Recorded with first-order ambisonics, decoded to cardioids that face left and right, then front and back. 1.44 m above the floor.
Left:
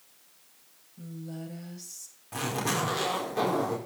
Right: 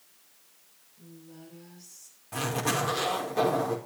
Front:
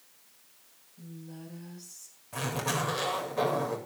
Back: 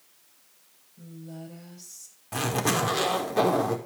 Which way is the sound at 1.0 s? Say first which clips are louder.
Left 7 dB, back 4 dB; 125° left.